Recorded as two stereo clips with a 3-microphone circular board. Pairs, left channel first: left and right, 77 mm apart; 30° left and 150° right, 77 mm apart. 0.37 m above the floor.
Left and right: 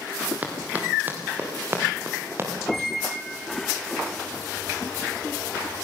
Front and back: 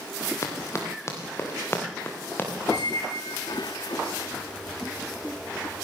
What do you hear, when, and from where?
0.4 s running footsteps: 20° right, 4.5 m; by 2.5 s 35° right, 5.5 m
2.7 s a squeak: 5° left, 1.9 m